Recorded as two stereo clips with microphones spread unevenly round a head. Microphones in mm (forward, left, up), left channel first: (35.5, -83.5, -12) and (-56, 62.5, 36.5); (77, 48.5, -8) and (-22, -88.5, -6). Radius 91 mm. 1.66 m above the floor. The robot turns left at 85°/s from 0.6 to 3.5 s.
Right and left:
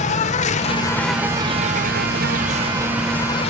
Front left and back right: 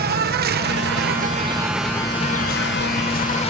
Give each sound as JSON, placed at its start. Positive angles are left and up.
{"t": 0.0, "sound": "an insect", "azimuth_deg": -110}